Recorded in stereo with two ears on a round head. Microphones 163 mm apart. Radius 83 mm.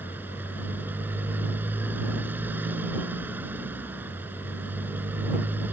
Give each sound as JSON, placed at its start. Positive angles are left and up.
{"t": 0.0, "sound": "a motorcycle", "side_deg": -10}